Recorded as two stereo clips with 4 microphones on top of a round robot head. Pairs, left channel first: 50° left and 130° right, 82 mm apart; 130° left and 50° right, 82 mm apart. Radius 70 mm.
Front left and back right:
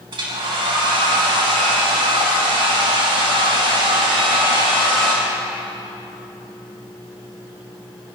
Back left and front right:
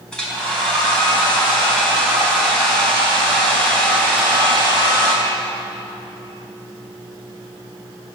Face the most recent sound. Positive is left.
turn(degrees=-150)